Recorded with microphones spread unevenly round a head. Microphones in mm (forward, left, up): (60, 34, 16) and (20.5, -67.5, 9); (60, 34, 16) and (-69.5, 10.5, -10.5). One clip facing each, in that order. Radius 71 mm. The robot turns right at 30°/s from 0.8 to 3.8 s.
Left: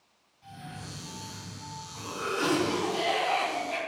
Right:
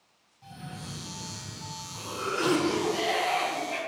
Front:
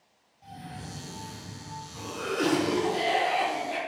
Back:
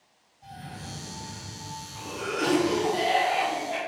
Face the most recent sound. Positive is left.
turn(degrees=30)